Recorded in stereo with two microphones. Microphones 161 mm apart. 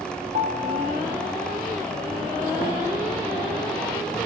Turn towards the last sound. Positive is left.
turn(degrees=-50)  # may be behind; listen again after turning